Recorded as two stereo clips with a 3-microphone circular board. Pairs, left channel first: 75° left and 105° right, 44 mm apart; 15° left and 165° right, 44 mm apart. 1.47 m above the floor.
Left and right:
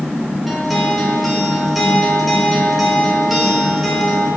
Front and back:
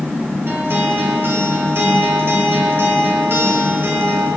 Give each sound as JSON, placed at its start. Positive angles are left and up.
{"t": 0.5, "sound": "a guitar", "azimuth_deg": 165, "distance_m": 3.0}